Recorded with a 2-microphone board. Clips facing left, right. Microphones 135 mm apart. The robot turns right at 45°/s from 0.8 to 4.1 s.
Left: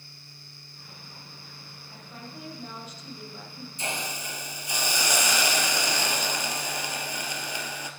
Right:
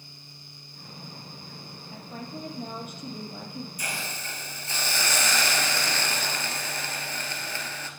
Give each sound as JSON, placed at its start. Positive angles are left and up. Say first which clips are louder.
{"t": 1.9, "sound": "a woman speaking", "louder": "right 5 dB", "azimuth_deg": -160, "distance_m": 4.0}
{"t": 3.8, "sound": "a hiss", "louder": "left 2 dB", "side_deg": 25, "distance_m": 1.7}